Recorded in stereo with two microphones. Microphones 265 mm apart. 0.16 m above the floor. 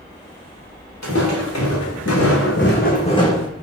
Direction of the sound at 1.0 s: 85° left.